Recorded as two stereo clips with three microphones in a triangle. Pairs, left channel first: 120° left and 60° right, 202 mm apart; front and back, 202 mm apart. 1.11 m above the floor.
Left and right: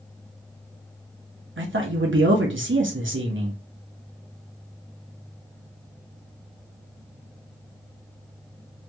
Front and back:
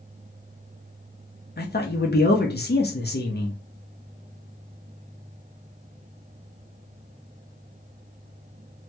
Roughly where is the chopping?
No chopping in this recording.